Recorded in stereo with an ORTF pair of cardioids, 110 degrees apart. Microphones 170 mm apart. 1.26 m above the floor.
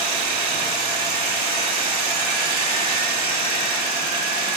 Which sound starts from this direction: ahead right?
A machine running, at 0.0 s.